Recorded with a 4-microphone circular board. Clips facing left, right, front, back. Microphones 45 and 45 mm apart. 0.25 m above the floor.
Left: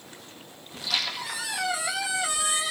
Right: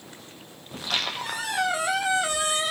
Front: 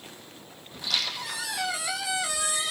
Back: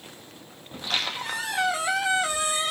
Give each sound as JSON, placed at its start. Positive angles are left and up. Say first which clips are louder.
{"t": 0.7, "sound": "a squeak", "louder": "right 1 dB, back 2 dB", "azimuth_deg": -135, "distance_m": 0.6}